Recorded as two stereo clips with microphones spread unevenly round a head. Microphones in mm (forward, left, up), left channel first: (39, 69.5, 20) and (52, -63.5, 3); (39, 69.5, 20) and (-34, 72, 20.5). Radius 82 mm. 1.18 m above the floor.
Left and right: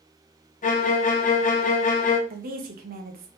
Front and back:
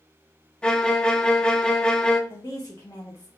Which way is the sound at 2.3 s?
75° right.